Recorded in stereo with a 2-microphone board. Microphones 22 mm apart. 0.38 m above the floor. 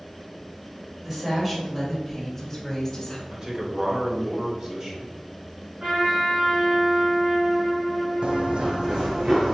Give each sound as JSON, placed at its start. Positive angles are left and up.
{"t": 1.0, "sound": "a woman speaking", "side_deg": -20, "distance_m": 1.7}
{"t": 3.3, "sound": "a man speaking", "side_deg": -30, "distance_m": 1.2}
{"t": 5.8, "sound": "a trumpet", "side_deg": -50, "distance_m": 1.8}
{"t": 8.2, "sound": "running footsteps", "side_deg": -50, "distance_m": 0.6}